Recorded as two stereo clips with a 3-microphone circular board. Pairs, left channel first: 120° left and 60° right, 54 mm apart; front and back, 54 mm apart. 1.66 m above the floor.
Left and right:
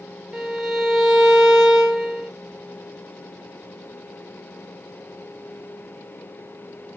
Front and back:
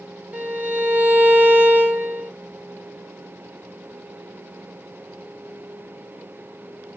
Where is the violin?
135° right, 0.9 m.